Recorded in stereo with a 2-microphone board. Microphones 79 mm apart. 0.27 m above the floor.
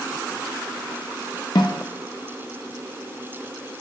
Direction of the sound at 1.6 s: 70° left (ahead or behind).